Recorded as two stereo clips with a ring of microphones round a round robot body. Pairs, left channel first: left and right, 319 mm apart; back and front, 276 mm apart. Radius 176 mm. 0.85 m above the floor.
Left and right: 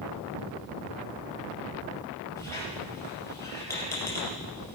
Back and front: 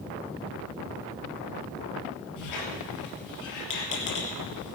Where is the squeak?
170° left, 3 m.